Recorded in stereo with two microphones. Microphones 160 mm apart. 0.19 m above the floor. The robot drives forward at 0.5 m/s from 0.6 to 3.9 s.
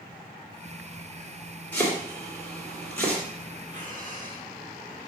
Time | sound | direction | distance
1.7 | chopping | 10° left (ahead or behind) | 4 m
3.7 | breathing | 30° left (ahead or behind) | 2.5 m